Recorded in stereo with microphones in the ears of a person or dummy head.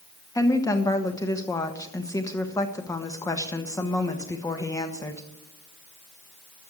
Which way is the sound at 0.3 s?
15° left (ahead or behind).